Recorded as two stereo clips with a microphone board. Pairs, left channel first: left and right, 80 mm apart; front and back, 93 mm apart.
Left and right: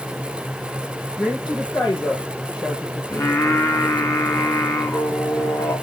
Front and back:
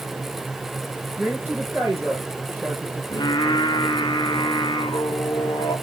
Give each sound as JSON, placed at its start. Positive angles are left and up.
{"t": 1.2, "sound": "a woman speaking", "azimuth_deg": 115, "distance_m": 6.0}
{"t": 3.1, "sound": "singing", "azimuth_deg": 40, "distance_m": 1.2}